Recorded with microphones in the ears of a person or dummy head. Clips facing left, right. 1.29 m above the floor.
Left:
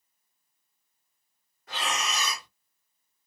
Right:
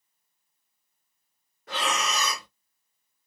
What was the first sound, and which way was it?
Breathing, 55° right (ahead or behind).